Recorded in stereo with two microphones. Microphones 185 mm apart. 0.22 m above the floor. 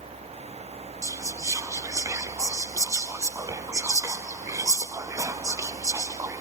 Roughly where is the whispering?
Centre.